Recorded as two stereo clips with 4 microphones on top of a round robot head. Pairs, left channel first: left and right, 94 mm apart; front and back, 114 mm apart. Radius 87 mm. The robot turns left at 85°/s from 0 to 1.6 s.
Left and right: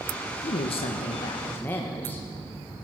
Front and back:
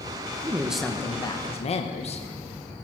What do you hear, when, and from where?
0.4 s a woman speaking: 120° left, 1.2 m; by 2.3 s 20° left, 1.2 m